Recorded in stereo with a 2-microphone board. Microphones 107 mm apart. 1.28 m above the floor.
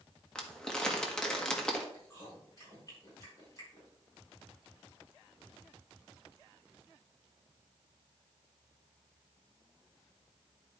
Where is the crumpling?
5° left (ahead or behind), 1.4 m.